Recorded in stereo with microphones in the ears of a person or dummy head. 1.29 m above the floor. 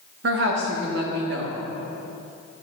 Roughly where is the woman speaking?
Right.